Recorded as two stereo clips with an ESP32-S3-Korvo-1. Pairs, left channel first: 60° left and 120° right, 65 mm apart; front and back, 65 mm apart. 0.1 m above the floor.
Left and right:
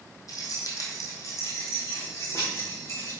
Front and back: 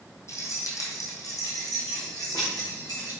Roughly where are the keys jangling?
Ahead left.